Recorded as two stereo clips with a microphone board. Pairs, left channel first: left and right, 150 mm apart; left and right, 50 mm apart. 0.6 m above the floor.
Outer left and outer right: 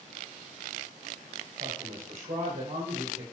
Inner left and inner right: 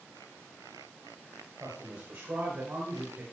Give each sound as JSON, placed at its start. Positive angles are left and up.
{"t": 1.6, "sound": "a man speaking", "side_deg": -70, "distance_m": 3.0}